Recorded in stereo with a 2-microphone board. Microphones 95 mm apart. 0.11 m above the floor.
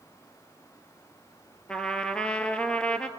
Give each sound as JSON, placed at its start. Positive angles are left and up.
{"t": 1.7, "sound": "a trumpet", "side_deg": 10, "distance_m": 1.2}